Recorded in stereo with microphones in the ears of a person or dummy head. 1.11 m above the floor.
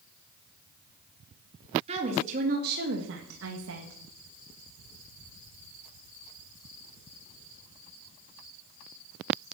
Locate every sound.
1.9 s a woman speaking: 35° right (ahead or behind), 2.5 m; by 4.0 s 55° right (ahead or behind), 1.8 m